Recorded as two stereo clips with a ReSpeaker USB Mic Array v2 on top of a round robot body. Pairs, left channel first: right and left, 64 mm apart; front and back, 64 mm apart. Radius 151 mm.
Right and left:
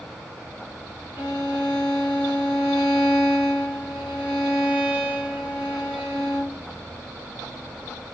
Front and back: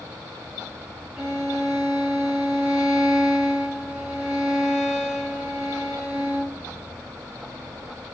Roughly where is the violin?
Right.